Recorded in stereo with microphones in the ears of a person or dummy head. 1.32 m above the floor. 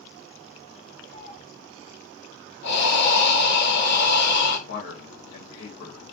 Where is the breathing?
65° left (ahead or behind), 1.6 m.